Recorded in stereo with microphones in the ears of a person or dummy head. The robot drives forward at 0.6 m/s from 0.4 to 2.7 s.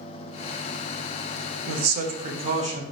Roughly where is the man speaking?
Right.